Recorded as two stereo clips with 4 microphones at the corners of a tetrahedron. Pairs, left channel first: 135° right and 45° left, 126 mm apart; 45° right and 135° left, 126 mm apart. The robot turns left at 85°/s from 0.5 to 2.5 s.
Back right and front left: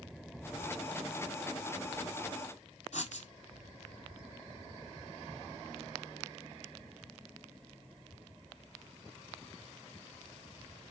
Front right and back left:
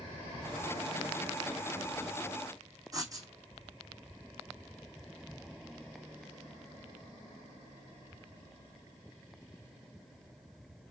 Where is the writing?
165° right, 1.7 m.